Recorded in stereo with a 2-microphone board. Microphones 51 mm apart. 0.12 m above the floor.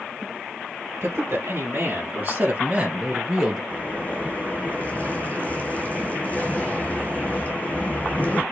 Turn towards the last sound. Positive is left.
turn(degrees=30)  # may be behind; listen again after turning